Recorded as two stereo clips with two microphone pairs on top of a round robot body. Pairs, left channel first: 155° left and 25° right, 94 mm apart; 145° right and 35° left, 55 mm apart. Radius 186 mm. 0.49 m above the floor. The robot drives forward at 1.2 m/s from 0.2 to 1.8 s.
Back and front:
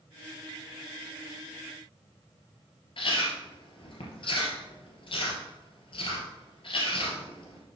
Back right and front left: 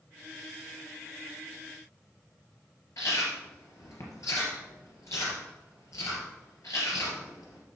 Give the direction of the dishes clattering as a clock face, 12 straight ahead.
I don't hear dishes clattering.